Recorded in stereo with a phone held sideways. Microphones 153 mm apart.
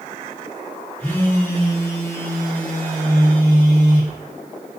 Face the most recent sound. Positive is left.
turn(degrees=10)  # may be behind; listen again after turning